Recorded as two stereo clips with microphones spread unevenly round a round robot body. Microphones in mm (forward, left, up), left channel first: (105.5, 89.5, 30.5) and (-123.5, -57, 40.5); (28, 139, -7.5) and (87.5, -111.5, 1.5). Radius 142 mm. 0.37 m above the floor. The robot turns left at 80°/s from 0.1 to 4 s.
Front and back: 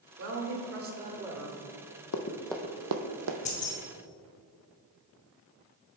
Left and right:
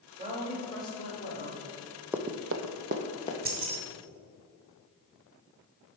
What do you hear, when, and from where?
0.2 s a woman speaking: 135° right, 1.3 m; by 1.6 s 110° left, 1.3 m
2.1 s running footsteps: 5° left, 0.7 m; by 3.4 s 170° left, 0.9 m
3.5 s keys jangling: 25° right, 1.3 m; by 3.8 s 50° right, 1.3 m